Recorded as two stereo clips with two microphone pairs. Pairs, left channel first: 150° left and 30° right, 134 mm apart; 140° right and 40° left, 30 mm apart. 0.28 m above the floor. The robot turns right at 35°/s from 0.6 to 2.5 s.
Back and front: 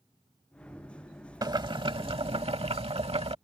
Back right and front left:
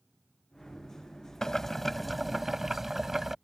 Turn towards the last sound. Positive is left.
turn(degrees=-40)